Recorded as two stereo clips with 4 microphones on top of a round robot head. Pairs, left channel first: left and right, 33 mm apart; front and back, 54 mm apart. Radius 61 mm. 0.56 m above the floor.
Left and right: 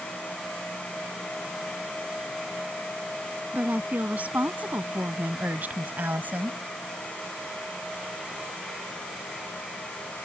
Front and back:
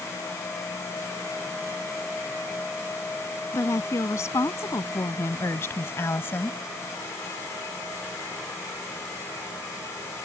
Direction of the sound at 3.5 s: 40° right.